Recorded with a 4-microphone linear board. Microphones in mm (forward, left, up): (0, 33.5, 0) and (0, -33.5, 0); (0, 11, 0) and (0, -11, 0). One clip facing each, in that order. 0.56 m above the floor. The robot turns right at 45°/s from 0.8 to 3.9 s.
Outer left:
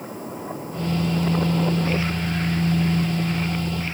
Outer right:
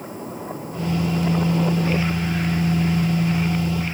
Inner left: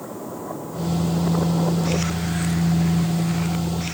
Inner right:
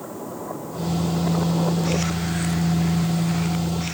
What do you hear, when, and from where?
Only background noise.